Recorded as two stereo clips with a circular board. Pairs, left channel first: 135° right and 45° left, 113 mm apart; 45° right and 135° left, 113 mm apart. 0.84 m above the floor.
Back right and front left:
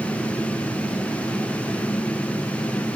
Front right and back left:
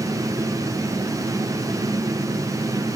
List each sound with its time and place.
Only background noise.